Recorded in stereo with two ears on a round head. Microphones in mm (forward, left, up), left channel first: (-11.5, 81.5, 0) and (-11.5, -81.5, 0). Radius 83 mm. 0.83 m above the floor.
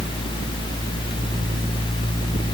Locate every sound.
Only background noise.